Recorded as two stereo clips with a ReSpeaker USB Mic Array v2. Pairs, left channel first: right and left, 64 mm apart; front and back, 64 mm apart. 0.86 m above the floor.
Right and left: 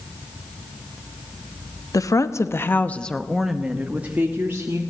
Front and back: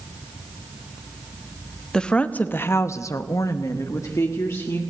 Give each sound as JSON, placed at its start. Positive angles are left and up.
{"t": 1.9, "sound": "a woman speaking", "azimuth_deg": -75, "distance_m": 1.1}